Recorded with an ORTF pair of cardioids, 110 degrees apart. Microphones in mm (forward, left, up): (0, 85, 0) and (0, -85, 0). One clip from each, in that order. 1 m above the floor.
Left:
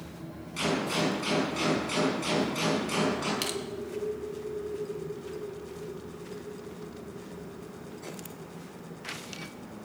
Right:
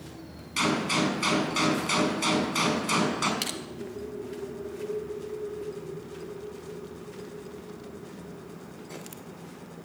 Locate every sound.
0.6 s a gunshot: 60° right, 5.5 m
3.4 s crushing: 10° right, 1.4 m